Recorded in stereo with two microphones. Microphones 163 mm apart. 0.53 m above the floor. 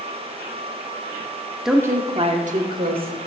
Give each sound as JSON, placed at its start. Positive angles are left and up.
{"t": 1.6, "sound": "a woman speaking", "side_deg": 0, "distance_m": 0.7}